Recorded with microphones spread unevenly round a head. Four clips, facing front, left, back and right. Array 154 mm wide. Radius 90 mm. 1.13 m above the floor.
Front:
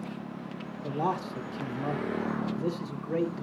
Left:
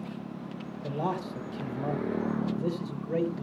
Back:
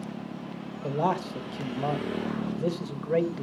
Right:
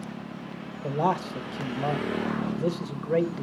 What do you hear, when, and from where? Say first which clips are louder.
0.8 s a man speaking: right 6 dB, back 3 dB; 100° right, 1.8 m